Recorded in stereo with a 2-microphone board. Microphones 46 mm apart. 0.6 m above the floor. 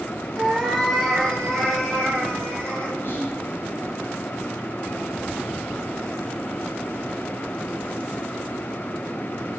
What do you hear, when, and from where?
0.4 s a cat meowing: 5° left (ahead or behind), 5 m; by 2.9 s 30° left (ahead or behind), 7 m
3.0 s whispering: 55° left (ahead or behind), 3.5 m